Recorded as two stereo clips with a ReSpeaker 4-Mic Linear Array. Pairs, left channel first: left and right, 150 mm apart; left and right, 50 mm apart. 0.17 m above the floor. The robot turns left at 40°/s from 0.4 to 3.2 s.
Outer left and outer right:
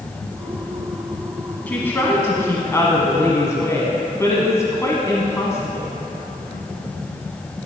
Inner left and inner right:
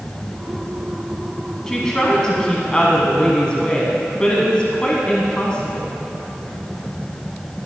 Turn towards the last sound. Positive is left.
turn(degrees=20)  # may be behind; listen again after turning